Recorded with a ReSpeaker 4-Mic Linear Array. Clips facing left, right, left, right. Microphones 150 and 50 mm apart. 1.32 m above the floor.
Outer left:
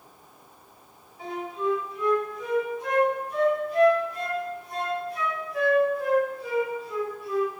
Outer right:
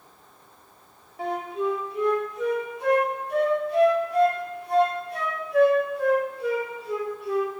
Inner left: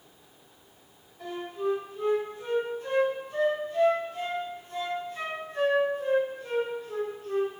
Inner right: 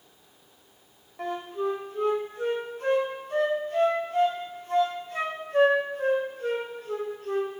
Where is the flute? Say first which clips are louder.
Outer right 3 dB, inner right 2 dB; 75° right (ahead or behind), 3 m.